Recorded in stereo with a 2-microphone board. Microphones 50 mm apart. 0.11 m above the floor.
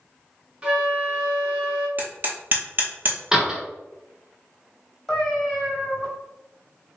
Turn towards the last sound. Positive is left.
turn(degrees=5)  # may be behind; listen again after turning